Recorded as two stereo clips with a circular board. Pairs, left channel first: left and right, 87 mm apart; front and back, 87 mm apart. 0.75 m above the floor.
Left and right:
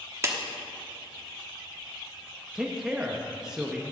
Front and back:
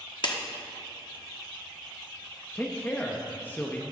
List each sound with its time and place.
0.2 s a clap: 35° right, 1.0 m
2.5 s a man speaking: 20° right, 0.7 m